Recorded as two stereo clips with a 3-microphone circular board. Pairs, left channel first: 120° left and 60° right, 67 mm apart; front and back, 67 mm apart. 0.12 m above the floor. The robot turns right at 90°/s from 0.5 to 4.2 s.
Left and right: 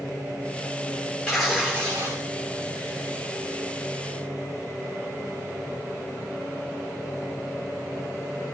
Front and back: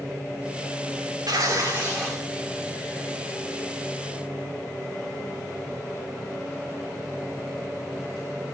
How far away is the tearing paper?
About 6 m.